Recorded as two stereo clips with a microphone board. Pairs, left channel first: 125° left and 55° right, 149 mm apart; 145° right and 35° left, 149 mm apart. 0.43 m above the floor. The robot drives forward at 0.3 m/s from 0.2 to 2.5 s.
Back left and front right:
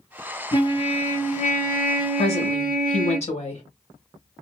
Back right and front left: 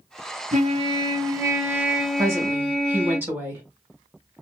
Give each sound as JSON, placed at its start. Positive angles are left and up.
{"t": 0.5, "sound": "a trumpet", "azimuth_deg": 70, "distance_m": 0.5}
{"t": 2.2, "sound": "a woman speaking", "azimuth_deg": 100, "distance_m": 1.2}